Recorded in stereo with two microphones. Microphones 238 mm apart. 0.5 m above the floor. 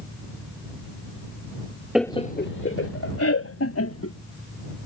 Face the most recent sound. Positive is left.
turn(degrees=70)  # may be behind; listen again after turning